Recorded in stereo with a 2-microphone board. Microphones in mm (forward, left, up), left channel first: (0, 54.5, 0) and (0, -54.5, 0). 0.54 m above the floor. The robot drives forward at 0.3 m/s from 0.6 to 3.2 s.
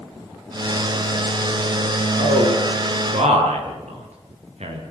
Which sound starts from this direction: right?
A man speaking, at 2.2 s.